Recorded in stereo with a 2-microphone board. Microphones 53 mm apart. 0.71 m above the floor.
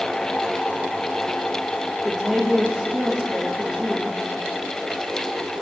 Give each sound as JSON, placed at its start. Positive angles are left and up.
{"t": 2.0, "sound": "a woman speaking", "side_deg": -10, "distance_m": 1.2}